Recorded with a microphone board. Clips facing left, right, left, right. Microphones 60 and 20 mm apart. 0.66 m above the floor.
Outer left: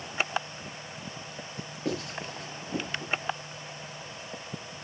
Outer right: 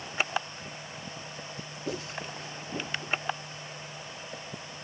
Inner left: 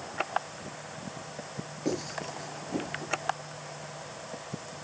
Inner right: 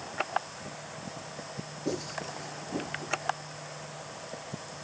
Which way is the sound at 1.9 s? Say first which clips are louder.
Outer left 3 dB, inner left 2 dB; 75° left (ahead or behind).